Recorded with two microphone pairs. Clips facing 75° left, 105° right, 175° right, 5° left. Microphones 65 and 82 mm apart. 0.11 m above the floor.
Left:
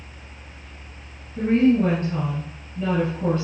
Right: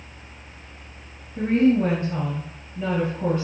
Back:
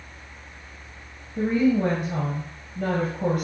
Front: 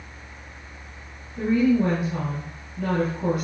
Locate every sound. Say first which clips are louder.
1.4 s a woman speaking: left 1 dB, front 1 dB; 170° right, 2.5 m